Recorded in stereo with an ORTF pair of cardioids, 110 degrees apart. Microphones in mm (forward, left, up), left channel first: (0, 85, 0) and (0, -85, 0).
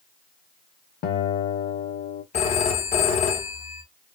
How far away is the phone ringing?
About 1.3 m.